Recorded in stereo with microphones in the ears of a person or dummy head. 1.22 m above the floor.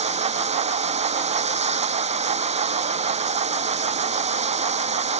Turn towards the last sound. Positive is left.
turn(degrees=-30)  # may be behind; listen again after turning